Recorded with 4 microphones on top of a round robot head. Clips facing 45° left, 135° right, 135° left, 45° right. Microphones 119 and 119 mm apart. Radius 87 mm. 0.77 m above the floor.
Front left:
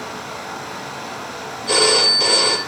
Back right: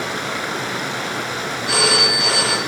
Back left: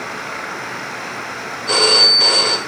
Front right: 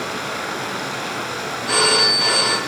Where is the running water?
110° right, 0.9 m.